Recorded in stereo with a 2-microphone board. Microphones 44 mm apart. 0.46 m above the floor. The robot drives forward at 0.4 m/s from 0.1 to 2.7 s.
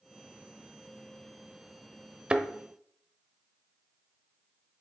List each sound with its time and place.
2.3 s a thud: 25° right (ahead or behind), 0.8 m